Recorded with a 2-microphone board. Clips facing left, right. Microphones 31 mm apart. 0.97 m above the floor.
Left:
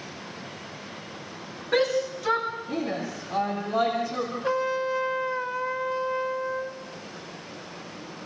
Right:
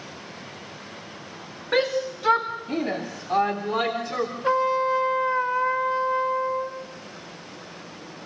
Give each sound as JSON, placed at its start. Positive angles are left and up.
{"t": 1.7, "sound": "a shout", "side_deg": -20, "distance_m": 2.0}
{"t": 4.4, "sound": "a trumpet", "side_deg": -15, "distance_m": 1.3}